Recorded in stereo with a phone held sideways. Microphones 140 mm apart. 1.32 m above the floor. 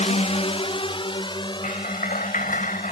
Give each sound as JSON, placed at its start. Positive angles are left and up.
{"t": 0.0, "sound": "a drone", "side_deg": 55}
{"t": 1.6, "sound": "a clap", "side_deg": 70}